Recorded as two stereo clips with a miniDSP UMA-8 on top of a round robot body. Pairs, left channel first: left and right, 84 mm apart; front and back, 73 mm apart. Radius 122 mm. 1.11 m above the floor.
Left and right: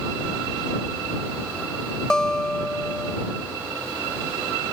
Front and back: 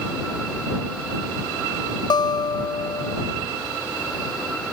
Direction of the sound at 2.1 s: 10° left.